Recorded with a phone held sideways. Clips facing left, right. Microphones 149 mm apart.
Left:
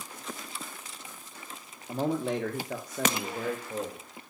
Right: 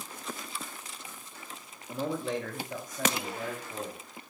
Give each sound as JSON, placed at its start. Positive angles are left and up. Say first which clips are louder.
{"t": 1.9, "sound": "a man speaking", "louder": "left 3 dB", "side_deg": 40, "distance_m": 1.0}